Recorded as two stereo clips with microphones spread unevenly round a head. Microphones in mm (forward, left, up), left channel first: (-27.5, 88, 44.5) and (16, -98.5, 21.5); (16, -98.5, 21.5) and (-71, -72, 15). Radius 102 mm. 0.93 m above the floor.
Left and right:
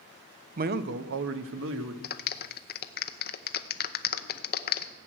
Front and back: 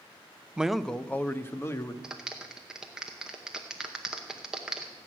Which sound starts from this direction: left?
A clap, at 2.0 s.